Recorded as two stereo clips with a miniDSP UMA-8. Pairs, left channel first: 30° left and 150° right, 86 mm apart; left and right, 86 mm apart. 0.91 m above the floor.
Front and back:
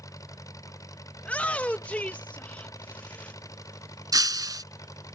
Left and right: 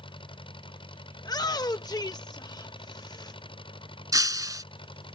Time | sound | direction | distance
0.0 | an engine running | 80° left | ?
1.2 | a shout | 100° left | ?
4.1 | breaking glass | 120° right | ?